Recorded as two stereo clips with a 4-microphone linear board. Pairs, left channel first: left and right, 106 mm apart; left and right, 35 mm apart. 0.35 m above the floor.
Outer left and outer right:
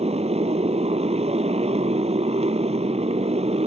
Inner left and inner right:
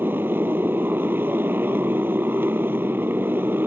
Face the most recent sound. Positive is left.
turn(degrees=-80)